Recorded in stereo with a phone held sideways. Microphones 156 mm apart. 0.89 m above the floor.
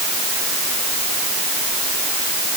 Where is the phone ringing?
I don't hear a phone ringing.